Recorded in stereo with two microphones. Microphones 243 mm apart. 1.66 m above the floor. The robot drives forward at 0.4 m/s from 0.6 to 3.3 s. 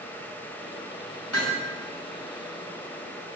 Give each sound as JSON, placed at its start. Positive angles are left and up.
{"t": 1.3, "sound": "hammering", "side_deg": 85, "distance_m": 8.0}